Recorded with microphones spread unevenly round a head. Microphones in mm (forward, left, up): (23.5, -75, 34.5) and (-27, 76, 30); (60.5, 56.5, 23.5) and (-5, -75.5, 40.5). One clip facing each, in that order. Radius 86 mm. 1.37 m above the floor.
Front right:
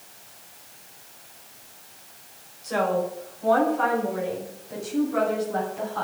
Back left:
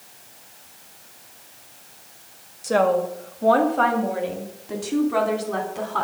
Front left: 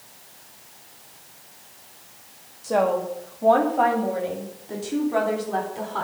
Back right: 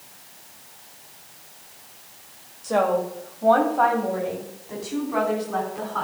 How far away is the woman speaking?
About 1.9 m.